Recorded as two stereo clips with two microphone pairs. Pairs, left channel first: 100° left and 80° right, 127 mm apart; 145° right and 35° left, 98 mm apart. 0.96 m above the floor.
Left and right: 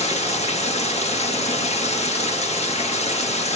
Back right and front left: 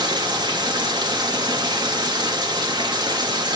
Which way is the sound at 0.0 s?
75° left.